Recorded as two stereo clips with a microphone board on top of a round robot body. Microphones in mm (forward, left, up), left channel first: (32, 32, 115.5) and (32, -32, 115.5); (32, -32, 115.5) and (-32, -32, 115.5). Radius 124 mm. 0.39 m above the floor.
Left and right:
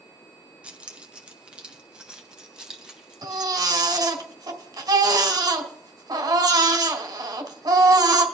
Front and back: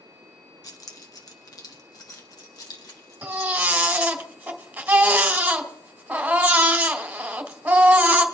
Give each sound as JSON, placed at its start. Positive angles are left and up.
{"t": 0.6, "sound": "keys jangling", "azimuth_deg": -20, "distance_m": 1.8}
{"t": 3.2, "sound": "a baby crying", "azimuth_deg": -110, "distance_m": 1.9}